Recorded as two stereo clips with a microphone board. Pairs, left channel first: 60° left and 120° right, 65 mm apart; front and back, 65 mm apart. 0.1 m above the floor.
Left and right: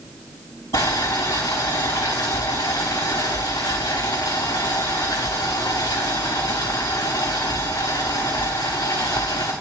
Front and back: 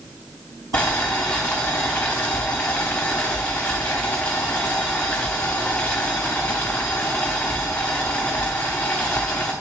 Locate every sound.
0.7 s boiling: 70° left, 1.4 m